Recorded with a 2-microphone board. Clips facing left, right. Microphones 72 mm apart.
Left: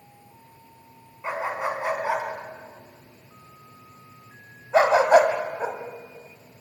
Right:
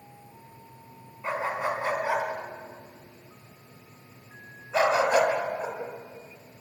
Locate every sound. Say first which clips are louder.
1.2 s a dog barking: left 1 dB; 10° left (ahead or behind), 3.5 m; by 5.8 s 45° left (ahead or behind), 2.5 m